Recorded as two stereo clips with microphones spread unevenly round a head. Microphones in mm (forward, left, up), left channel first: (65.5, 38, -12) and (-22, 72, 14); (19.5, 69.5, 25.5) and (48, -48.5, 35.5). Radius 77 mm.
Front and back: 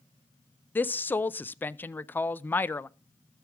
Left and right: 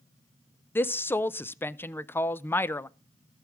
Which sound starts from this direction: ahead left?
A woman speaking, at 0.8 s.